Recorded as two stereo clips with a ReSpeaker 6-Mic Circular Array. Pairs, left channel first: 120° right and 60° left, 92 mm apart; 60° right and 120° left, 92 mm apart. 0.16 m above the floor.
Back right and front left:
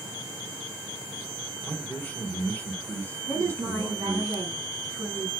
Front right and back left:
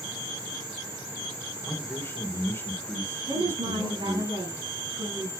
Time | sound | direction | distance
1.6 | a man speaking | 70° right | 1.7 m
3.3 | a woman speaking | 125° left | 5.5 m